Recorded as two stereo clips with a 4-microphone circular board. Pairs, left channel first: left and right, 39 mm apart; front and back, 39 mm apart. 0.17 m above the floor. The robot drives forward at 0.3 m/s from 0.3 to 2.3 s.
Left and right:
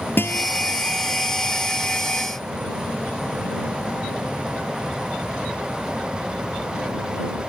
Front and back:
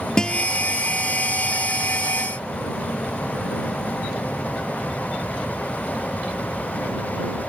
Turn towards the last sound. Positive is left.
turn(degrees=100)